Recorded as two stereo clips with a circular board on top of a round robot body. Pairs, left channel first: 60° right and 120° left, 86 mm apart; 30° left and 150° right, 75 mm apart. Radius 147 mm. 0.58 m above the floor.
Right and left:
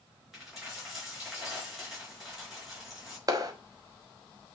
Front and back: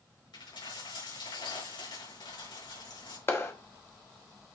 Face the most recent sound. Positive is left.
turn(degrees=80)